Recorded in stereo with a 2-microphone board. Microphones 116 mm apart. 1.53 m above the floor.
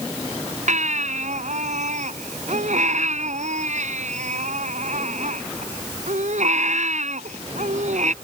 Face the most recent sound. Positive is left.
turn(degrees=-75)  # may be behind; listen again after turning